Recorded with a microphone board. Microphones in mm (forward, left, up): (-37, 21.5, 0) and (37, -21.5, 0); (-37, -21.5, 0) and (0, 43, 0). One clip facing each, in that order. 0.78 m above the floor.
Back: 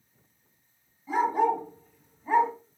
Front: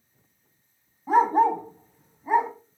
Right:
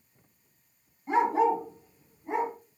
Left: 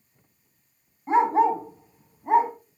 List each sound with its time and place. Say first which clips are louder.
1.1 s a dog barking: front 5 dB, left 4 dB; 5° left, 1.9 m; by 2.5 s 50° left, 1.6 m